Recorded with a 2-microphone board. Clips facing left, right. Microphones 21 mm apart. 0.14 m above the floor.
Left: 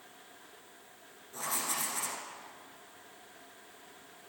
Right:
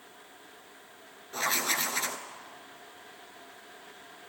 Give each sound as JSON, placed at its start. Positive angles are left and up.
{"t": 1.3, "sound": "writing", "side_deg": -60, "distance_m": 0.8}